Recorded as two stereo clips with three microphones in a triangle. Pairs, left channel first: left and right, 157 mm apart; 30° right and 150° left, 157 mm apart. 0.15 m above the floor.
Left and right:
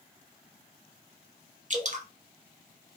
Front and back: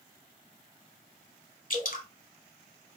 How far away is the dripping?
About 0.9 m.